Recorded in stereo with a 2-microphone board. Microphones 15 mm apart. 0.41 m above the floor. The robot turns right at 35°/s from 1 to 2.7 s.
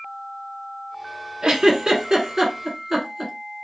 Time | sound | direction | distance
1.4 | a giggle | 50° right (ahead or behind) | 0.8 m